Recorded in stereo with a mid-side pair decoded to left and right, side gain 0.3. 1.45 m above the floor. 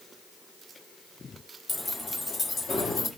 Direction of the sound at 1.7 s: 40° left.